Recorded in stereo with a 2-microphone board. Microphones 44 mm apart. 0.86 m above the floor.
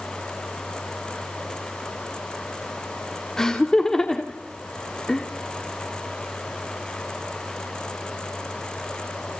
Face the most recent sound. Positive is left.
turn(degrees=15)  # may be behind; listen again after turning